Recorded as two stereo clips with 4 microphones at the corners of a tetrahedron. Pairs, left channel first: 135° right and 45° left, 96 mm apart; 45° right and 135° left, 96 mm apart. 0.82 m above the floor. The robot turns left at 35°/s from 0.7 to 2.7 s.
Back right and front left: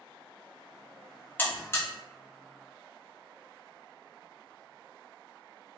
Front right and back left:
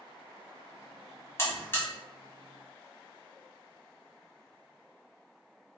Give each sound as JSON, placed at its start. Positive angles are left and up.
{"t": 1.4, "sound": "a buzzer", "azimuth_deg": -80, "distance_m": 0.8}